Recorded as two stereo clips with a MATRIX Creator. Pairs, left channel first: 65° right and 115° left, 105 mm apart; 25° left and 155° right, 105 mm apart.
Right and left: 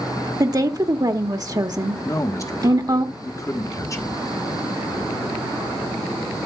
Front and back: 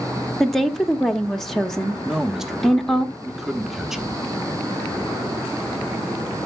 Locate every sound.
0.4 s a woman speaking: 105° left, 0.9 m
2.0 s a man speaking: 75° right, 1.0 m